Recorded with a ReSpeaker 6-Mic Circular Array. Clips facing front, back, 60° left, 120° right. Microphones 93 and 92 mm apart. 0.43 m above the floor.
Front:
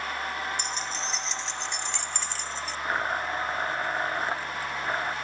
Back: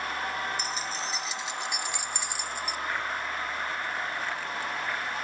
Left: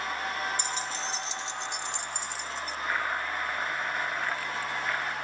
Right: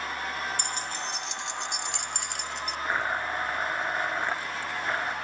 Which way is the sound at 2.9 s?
50° right.